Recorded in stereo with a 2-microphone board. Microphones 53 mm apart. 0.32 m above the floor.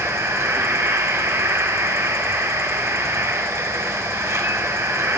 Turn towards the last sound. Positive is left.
turn(degrees=-60)  # may be behind; listen again after turning